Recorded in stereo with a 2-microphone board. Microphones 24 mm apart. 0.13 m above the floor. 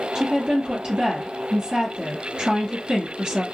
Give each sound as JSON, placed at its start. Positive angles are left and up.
{"t": 0.1, "sound": "a woman speaking", "side_deg": -30, "distance_m": 1.8}